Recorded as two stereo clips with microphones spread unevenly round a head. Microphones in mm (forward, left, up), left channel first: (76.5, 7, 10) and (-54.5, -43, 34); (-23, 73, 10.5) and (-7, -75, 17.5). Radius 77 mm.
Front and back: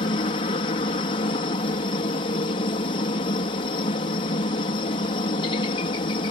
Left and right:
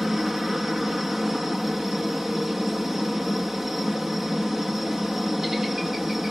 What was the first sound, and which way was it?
A helicopter, 5° left.